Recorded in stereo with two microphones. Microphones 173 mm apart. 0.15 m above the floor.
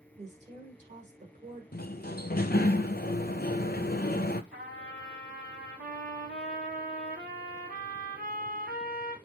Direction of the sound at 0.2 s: 40° right (ahead or behind).